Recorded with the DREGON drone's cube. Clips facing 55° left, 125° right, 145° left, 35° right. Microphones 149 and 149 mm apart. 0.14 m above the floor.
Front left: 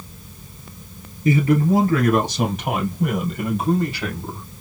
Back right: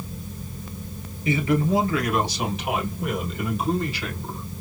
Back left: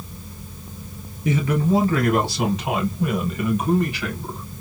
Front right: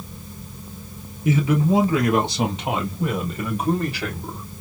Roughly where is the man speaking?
Ahead left.